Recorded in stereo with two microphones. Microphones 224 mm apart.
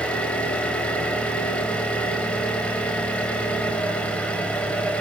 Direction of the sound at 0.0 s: 5° left (ahead or behind).